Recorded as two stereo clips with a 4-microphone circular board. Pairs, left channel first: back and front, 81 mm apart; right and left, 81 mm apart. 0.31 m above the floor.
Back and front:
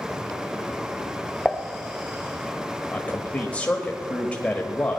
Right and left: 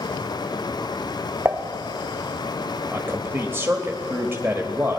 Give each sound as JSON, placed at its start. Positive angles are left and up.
{"t": 1.4, "sound": "dishes clattering", "azimuth_deg": 110, "distance_m": 0.6}
{"t": 2.9, "sound": "a man speaking", "azimuth_deg": 120, "distance_m": 1.0}